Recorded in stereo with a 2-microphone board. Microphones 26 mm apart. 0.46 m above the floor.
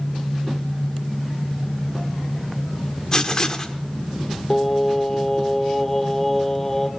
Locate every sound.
3.1 s writing: 30° left (ahead or behind), 0.8 m
4.5 s singing: 15° left (ahead or behind), 1.2 m